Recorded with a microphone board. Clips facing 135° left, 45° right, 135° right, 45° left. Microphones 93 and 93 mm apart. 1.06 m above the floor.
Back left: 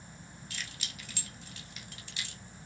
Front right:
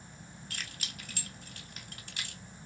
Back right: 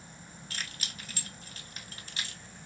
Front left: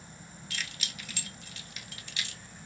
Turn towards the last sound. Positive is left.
turn(degrees=-85)